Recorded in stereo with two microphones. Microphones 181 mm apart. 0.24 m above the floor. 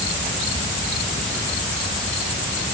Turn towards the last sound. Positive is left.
No sound to turn to.